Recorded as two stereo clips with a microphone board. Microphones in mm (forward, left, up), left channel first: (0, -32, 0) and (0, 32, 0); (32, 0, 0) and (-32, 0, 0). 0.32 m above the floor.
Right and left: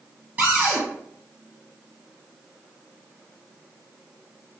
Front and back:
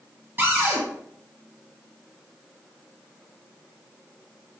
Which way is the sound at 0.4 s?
145° left.